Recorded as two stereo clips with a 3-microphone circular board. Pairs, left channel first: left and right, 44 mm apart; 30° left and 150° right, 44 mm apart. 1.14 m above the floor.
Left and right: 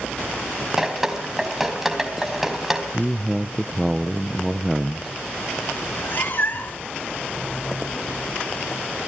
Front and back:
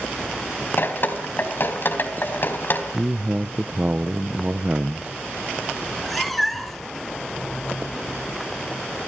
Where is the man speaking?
170° right, 0.5 m.